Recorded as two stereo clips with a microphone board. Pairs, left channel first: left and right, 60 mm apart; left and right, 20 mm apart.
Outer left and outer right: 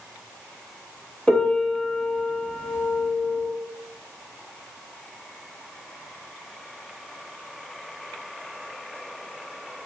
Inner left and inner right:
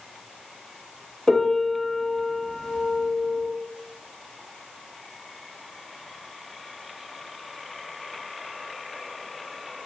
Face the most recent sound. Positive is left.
turn(degrees=20)  # may be behind; listen again after turning